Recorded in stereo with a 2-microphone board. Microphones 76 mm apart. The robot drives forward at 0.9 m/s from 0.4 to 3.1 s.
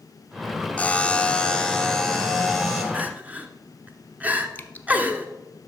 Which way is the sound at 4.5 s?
20° left (ahead or behind).